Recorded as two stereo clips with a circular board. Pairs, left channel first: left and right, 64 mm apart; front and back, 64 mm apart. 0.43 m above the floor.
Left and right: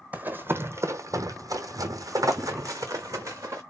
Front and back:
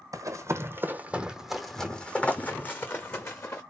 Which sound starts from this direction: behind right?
Running footsteps, at 0.1 s.